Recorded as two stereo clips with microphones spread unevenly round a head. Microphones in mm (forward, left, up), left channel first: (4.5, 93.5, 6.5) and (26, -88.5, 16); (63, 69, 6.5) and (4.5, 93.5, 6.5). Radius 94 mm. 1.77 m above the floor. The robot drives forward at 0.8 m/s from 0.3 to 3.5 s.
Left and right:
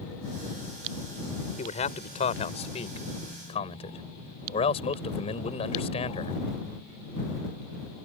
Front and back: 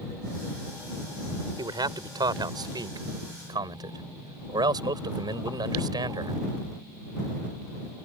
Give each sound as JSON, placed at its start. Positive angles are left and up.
{"t": 1.6, "sound": "a man speaking", "azimuth_deg": 155}